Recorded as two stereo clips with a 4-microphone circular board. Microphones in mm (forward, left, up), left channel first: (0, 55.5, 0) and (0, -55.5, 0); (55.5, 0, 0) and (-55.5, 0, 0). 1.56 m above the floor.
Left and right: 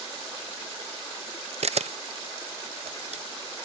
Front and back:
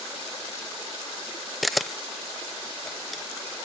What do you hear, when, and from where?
1.6 s a camera shutter: 90° right